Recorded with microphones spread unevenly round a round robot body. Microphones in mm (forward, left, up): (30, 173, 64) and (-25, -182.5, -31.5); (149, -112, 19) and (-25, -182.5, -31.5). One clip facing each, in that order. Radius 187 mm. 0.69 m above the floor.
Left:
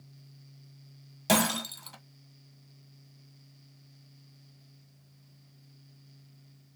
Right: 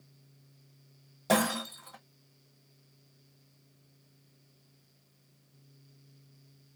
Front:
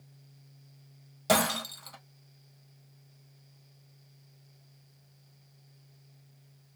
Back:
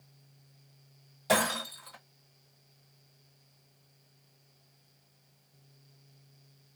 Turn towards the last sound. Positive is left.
turn(degrees=45)